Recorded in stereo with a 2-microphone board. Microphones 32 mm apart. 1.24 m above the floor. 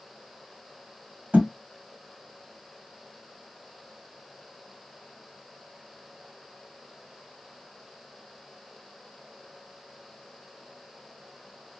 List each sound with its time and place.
1.3 s a thud: 65° right (ahead or behind), 2 m